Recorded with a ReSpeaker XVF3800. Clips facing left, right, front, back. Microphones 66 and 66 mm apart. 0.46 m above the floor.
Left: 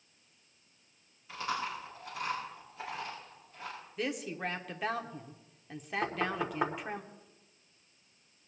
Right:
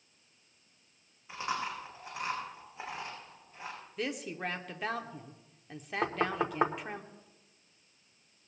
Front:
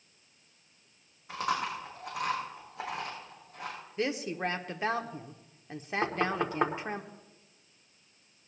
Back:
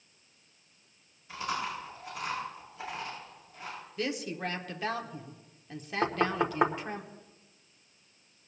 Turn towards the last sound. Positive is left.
turn(degrees=-115)